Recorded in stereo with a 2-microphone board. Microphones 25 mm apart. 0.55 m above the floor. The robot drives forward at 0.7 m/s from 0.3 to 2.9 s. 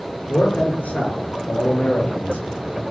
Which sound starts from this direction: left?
A man speaking, at 0.3 s.